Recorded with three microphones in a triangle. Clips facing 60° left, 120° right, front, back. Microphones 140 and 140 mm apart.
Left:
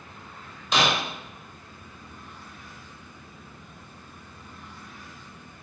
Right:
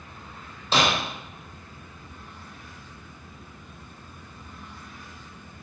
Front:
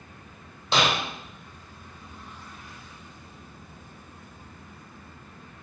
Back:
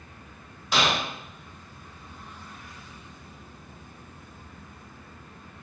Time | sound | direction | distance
0.7 | breaking glass | 60° right | 2.5 m